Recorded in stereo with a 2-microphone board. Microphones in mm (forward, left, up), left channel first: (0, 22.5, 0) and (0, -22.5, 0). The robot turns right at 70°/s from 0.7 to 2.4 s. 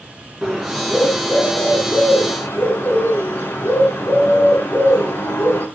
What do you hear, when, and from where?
0.4 s a bird: straight ahead, 6 m; by 5.7 s 120° left, 6 m